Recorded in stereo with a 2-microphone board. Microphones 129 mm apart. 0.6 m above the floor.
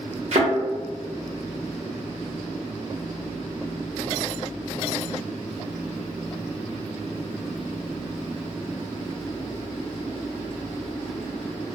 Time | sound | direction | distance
0.3 | a thud | 55° right (ahead or behind) | 0.9 m